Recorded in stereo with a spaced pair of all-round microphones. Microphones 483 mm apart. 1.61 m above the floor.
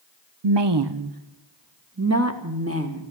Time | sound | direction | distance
0.4 | a woman speaking | 70° right (ahead or behind) | 0.6 m